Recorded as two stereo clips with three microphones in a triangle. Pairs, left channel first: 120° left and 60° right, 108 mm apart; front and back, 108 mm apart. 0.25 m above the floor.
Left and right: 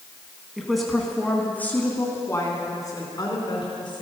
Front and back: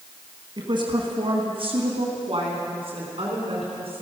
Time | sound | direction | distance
0.6 | a woman speaking | 145° right | 2 m